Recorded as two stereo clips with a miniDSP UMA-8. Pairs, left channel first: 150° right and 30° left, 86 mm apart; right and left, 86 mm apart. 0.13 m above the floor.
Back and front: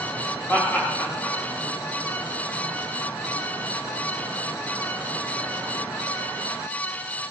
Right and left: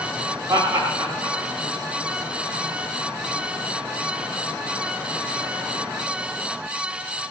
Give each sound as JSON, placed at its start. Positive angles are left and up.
{"t": 0.5, "sound": "laughter", "azimuth_deg": 140, "distance_m": 9.0}